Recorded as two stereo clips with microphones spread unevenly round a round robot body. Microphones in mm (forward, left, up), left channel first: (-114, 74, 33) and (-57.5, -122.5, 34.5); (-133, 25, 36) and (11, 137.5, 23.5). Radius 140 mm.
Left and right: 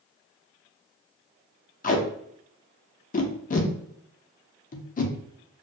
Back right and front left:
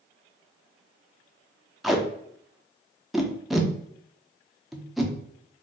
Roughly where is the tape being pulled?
Behind left.